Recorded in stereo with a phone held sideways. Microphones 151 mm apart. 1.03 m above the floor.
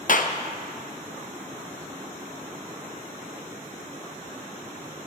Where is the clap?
60° left (ahead or behind), 0.6 m.